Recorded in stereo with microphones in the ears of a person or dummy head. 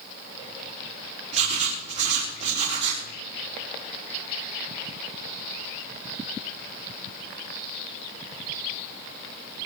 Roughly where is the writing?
Right.